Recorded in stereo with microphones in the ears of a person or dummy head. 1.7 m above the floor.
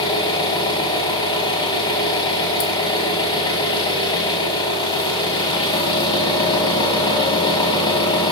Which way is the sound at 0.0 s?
25° left (ahead or behind).